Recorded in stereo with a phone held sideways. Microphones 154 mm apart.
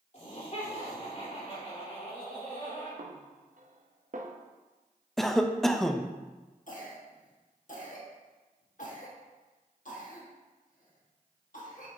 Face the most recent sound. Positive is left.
turn(degrees=60)  # may be behind; listen again after turning